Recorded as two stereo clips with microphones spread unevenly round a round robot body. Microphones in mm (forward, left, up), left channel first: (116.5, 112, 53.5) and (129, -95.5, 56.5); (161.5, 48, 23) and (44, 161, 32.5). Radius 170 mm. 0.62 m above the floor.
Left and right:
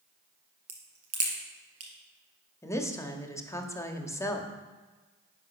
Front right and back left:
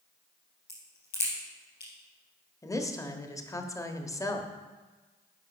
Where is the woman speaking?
20° left, 1.3 m.